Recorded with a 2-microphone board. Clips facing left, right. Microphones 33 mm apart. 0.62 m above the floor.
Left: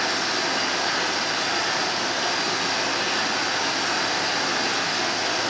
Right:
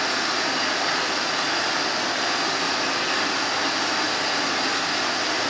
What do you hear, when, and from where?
0.0 s running water: 30° right (ahead or behind), 2 m